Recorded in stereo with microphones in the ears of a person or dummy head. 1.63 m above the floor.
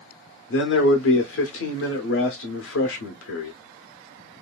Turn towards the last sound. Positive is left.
turn(degrees=80)